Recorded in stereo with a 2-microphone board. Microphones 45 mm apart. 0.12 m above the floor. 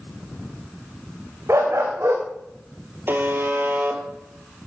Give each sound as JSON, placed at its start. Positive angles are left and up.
{"t": 1.5, "sound": "a dog barking", "side_deg": -85, "distance_m": 3.5}
{"t": 3.1, "sound": "a buzzer", "side_deg": -50, "distance_m": 2.5}